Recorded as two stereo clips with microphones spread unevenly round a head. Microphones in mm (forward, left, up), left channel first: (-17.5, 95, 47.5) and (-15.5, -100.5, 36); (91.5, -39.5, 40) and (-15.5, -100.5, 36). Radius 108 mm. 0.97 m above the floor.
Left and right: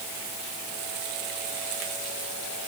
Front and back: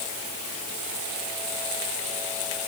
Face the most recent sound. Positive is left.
No sound to turn to.